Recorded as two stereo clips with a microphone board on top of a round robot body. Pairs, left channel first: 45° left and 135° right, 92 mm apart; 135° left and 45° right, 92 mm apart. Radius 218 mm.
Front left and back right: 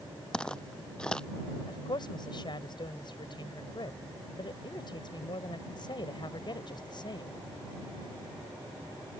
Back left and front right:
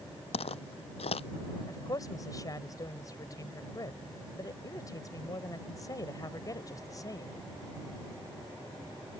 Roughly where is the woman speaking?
Left.